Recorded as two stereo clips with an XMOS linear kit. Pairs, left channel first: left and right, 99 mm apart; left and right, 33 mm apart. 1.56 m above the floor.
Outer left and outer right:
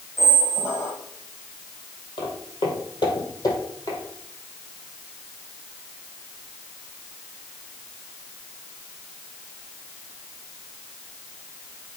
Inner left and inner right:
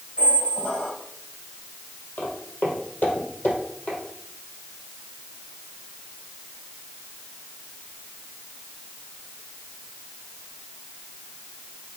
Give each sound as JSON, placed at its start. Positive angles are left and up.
{"t": 0.2, "sound": "a squeak", "side_deg": 25, "distance_m": 2.0}
{"t": 2.2, "sound": "footsteps", "side_deg": 60, "distance_m": 3.0}